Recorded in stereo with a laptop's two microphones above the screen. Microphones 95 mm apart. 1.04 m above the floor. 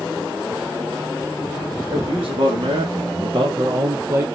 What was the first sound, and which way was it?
A man speaking, 65° right (ahead or behind).